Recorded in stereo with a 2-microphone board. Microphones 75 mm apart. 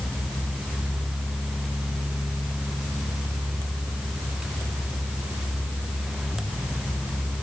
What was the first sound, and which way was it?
Only background noise.